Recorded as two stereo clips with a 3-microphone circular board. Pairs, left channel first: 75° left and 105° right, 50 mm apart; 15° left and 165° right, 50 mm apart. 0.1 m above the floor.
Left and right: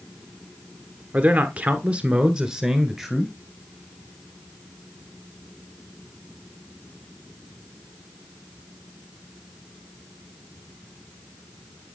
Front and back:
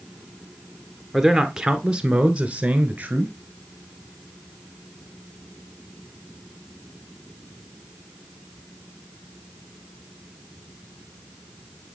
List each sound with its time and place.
1.1 s a man speaking: 85° right, 1.5 m; by 3.3 s 160° left, 1.7 m